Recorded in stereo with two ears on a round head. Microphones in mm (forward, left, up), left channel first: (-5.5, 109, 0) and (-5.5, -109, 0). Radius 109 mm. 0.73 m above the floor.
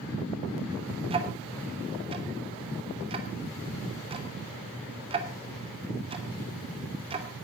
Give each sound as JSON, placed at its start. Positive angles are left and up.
{"t": 1.1, "sound": "ticking", "side_deg": -25, "distance_m": 2.5}